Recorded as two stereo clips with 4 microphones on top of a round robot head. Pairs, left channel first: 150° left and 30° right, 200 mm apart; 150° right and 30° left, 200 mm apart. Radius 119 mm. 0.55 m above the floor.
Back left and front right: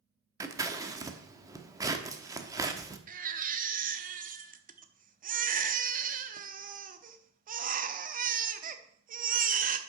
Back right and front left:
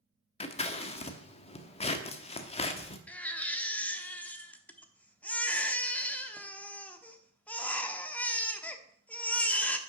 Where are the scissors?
100° right, 1.2 m.